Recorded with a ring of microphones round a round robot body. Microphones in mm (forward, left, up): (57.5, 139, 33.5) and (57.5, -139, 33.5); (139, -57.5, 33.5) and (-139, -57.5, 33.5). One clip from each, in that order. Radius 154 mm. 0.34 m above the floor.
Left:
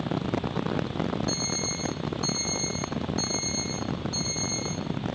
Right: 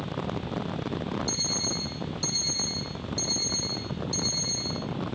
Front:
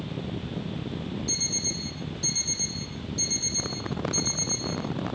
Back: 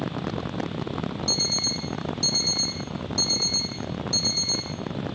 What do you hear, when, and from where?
1.3 s an alarm clock: 155° right, 9 m